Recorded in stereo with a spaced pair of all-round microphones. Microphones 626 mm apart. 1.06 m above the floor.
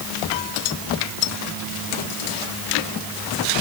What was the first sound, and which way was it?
Only background noise.